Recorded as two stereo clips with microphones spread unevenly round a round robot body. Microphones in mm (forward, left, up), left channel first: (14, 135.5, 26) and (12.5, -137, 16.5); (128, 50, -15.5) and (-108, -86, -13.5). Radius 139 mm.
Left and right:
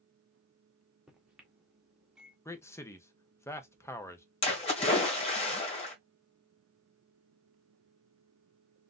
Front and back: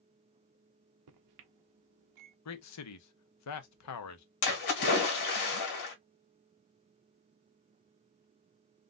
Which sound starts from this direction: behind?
A microwave, at 1.1 s.